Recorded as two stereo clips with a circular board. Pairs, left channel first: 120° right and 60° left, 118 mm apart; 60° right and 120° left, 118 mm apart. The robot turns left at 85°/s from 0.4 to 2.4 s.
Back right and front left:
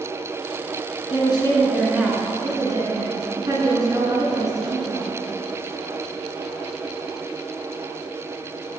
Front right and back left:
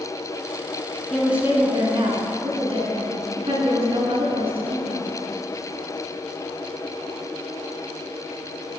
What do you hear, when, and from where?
1.1 s a woman speaking: 145° right, 2 m; by 5.1 s 105° left, 2 m